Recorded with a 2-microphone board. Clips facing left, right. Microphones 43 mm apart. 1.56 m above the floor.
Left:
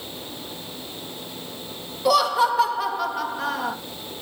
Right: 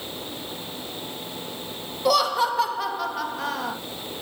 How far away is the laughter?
About 2.5 m.